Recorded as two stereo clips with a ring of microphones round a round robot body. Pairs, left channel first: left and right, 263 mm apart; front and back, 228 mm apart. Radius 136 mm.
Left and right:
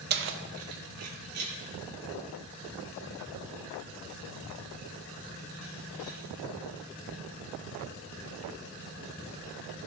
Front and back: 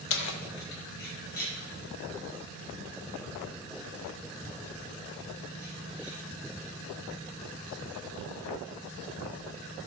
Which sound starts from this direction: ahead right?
Keys jangling, at 0.1 s.